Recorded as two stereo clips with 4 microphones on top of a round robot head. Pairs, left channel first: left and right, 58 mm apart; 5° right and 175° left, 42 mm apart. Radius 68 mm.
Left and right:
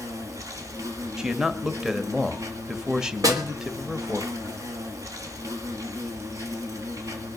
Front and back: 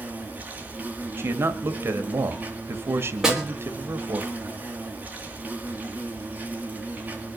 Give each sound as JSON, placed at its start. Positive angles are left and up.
{"t": 0.0, "sound": "an insect", "azimuth_deg": -120, "distance_m": 3.0}
{"t": 1.2, "sound": "a man speaking", "azimuth_deg": -170, "distance_m": 1.8}
{"t": 3.2, "sound": "a snare drum", "azimuth_deg": -100, "distance_m": 3.5}